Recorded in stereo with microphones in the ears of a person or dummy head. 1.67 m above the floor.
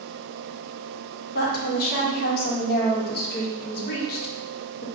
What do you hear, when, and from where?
1.4 s a woman speaking: 55° left (ahead or behind), 1.1 m